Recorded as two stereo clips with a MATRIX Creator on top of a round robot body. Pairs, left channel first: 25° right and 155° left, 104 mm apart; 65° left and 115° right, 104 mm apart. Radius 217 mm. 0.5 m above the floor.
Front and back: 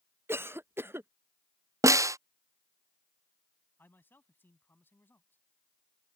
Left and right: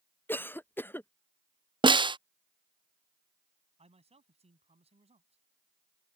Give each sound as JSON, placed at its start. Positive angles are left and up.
{"t": 0.3, "sound": "a cough", "azimuth_deg": 115}
{"t": 1.8, "sound": "a snare drum", "azimuth_deg": -145}
{"t": 3.8, "sound": "a man speaking", "azimuth_deg": -95}